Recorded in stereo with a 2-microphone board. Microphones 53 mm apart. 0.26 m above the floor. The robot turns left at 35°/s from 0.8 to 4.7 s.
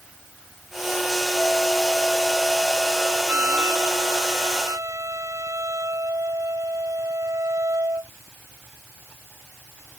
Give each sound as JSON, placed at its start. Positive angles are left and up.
{"t": 1.4, "sound": "a flute", "azimuth_deg": 25}